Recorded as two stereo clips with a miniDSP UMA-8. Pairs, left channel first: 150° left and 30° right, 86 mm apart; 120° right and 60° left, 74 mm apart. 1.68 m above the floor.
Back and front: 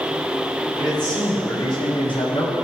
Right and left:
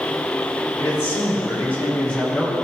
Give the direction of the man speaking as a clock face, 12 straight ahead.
6 o'clock.